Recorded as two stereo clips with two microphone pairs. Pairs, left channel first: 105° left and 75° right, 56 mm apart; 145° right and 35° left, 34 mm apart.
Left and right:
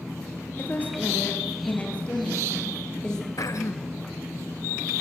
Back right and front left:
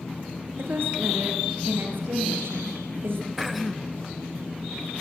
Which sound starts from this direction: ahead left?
A woman speaking, at 0.6 s.